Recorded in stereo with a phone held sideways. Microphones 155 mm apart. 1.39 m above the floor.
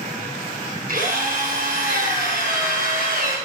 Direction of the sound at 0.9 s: 75° right (ahead or behind).